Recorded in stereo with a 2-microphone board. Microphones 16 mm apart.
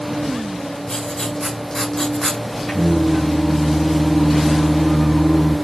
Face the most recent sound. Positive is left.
turn(degrees=30)  # may be behind; listen again after turning